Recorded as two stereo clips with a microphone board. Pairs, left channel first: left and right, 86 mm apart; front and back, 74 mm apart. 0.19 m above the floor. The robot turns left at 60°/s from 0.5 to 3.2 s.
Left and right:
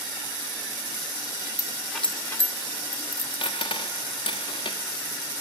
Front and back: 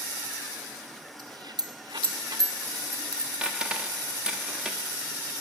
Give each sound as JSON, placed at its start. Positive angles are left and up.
{"t": 1.2, "sound": "a dropped coin", "azimuth_deg": -140, "distance_m": 0.9}